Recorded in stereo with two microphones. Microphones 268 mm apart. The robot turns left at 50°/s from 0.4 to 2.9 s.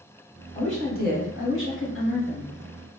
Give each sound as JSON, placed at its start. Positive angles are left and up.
{"t": 0.5, "sound": "a woman speaking", "azimuth_deg": 155, "distance_m": 1.0}